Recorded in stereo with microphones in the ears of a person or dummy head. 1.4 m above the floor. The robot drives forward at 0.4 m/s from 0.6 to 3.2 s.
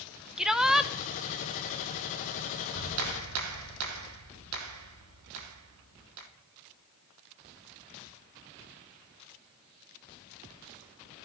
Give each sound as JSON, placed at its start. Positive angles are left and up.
{"t": 0.4, "sound": "a shout", "side_deg": 0, "distance_m": 0.7}
{"t": 2.7, "sound": "a clap", "side_deg": -90, "distance_m": 1.2}